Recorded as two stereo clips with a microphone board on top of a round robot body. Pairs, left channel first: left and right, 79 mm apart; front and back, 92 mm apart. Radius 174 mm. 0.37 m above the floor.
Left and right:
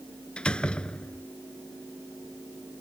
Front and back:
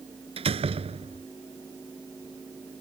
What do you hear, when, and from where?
0.4 s a door slam: 170° left